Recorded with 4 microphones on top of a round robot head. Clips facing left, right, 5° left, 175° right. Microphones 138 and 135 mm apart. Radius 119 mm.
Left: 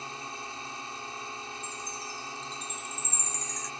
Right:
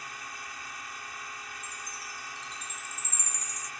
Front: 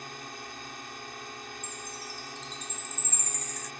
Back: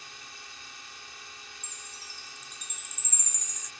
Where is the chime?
105° left.